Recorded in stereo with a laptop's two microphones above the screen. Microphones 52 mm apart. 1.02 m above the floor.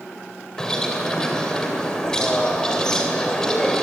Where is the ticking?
No ticking in this recording.